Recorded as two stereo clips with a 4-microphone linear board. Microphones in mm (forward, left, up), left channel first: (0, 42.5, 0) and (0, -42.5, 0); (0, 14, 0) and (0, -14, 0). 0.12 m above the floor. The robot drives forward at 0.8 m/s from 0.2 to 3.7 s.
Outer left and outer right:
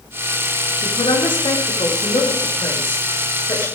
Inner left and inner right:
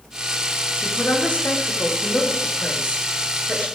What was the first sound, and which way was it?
A man speaking, 80° left.